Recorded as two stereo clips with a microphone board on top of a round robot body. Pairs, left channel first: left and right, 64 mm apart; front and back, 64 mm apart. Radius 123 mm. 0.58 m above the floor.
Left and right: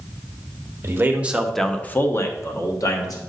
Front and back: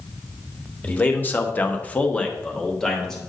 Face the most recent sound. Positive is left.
turn(degrees=80)